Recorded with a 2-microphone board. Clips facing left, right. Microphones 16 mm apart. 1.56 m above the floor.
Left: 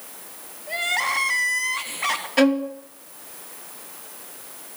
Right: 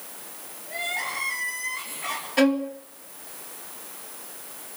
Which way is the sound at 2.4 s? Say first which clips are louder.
Left 2 dB; 5° left (ahead or behind).